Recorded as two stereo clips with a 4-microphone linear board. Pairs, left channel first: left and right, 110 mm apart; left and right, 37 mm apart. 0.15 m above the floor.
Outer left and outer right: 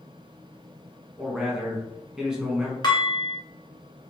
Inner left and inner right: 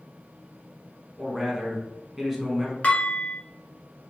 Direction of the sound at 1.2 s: 5° right (ahead or behind).